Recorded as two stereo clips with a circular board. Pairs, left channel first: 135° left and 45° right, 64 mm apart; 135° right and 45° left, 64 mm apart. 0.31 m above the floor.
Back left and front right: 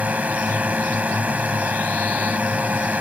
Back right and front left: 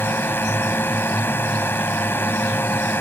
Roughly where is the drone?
Right.